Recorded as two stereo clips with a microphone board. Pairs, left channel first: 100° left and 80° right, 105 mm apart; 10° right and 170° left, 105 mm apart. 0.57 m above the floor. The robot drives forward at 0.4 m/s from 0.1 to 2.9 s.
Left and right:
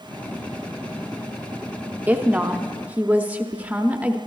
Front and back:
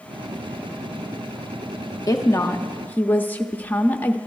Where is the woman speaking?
20° right, 1.0 m; by 4.2 s 45° right, 0.9 m.